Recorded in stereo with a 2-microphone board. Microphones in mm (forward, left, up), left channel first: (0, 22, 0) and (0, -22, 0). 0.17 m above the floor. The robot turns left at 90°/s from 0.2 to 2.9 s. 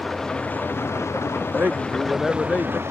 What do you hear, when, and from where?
0.0 s an engine running: 170° left; by 2.9 s 70° right
1.6 s a man speaking: 125° right; by 2.8 s 125° left